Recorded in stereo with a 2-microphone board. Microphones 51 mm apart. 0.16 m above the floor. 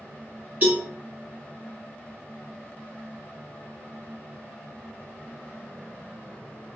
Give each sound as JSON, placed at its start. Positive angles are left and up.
{"t": 0.6, "sound": "a cowbell", "side_deg": -35, "distance_m": 1.8}